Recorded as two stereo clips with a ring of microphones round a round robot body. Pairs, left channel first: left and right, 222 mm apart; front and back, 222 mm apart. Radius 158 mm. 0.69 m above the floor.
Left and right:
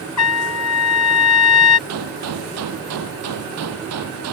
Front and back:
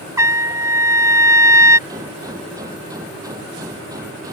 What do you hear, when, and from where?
0.2 s a trumpet: 105° left
1.9 s a gunshot: 100° right